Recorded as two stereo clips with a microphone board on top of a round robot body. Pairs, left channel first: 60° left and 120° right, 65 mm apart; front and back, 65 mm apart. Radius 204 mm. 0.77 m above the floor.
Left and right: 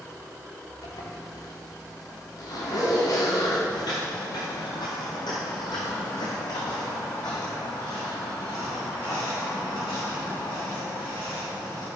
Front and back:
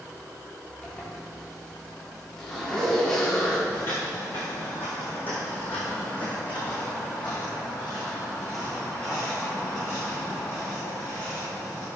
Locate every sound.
0.8 s a zipper: 80° left, 2.5 m
3.7 s footsteps: 55° left, 0.9 m; by 11.9 s 70° left, 6 m